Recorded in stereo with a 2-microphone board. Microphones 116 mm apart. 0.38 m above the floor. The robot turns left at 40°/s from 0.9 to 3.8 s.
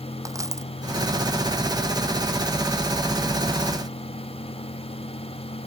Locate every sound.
0.2 s a dropped coin: 25° right (ahead or behind)